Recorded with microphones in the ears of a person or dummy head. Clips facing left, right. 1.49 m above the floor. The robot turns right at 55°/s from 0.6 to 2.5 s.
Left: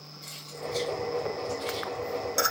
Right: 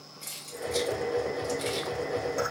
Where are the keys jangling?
40° right (ahead or behind), 0.9 m; by 1.9 s 60° right (ahead or behind), 0.9 m.